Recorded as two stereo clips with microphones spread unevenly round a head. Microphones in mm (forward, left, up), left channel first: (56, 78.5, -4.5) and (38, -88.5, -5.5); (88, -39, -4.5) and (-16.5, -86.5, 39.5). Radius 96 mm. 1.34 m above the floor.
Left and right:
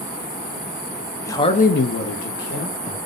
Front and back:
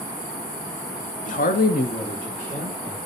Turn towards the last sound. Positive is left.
turn(degrees=130)